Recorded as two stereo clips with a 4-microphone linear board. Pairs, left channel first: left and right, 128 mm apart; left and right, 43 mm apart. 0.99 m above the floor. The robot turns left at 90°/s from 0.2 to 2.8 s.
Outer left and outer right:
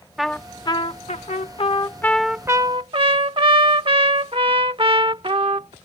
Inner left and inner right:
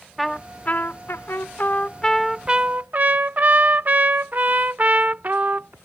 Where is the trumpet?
175° right; by 5.7 s 50° right.